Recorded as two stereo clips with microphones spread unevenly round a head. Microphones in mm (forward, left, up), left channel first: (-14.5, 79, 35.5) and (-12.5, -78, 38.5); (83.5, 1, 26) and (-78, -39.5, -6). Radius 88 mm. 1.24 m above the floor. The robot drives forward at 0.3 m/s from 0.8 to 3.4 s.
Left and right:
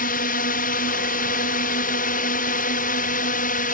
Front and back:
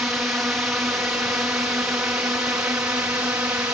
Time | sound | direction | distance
0.0 | a drone | 110° left | ?